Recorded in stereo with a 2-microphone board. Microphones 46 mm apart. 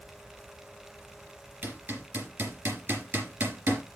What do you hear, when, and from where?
1.6 s hammering: 55° right (ahead or behind), 5 m